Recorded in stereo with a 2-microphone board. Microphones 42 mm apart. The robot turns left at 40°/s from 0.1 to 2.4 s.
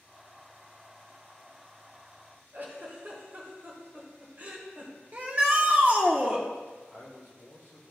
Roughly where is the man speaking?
Right.